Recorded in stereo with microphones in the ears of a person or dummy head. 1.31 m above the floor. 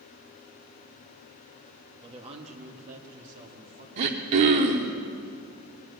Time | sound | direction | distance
2.0 | a woman speaking | 30° right (ahead or behind) | 1.5 m
4.0 | throat clearing | 35° right (ahead or behind) | 1.0 m